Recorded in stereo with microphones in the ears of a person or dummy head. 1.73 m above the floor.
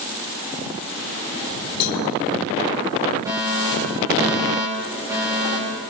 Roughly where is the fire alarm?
Centre.